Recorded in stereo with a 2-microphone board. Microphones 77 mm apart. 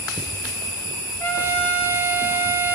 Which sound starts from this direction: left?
A trumpet, at 1.2 s.